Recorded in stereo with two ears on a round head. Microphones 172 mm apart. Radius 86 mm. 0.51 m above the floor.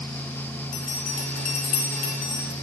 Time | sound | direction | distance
0.7 | a bell | 40° left (ahead or behind) | 1.7 m